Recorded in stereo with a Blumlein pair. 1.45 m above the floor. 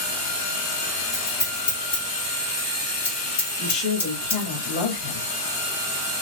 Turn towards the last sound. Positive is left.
turn(degrees=45)